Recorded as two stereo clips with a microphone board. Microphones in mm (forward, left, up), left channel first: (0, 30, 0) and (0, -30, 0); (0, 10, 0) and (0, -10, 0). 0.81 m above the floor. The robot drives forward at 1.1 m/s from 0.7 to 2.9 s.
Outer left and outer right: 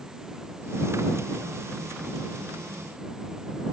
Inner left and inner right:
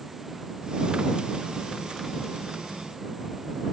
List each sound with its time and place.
Only background noise.